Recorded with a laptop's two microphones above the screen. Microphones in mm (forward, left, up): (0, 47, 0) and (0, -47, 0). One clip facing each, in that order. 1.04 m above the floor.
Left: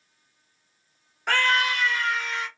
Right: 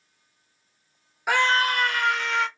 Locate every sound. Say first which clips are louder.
1.3 s a scream: right 2 dB; 10° right (ahead or behind), 0.5 m; by 2.5 s 75° right (ahead or behind), 1.1 m